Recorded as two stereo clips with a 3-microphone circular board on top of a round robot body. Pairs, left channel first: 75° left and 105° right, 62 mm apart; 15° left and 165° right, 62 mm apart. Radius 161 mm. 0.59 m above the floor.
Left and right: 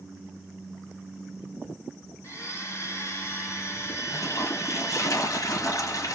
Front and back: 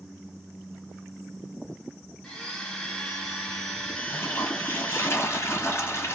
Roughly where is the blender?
Left.